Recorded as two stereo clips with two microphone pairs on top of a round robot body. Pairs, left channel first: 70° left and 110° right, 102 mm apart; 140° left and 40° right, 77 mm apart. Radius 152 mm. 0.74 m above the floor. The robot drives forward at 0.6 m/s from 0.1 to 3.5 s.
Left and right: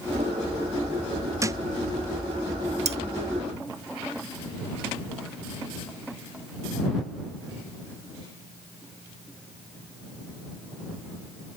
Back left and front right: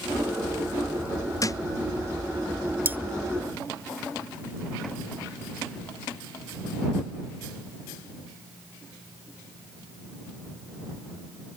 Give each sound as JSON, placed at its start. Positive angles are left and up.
{"t": 1.4, "sound": "a thud", "azimuth_deg": -175}
{"t": 2.9, "sound": "cutlery clinking", "azimuth_deg": -105}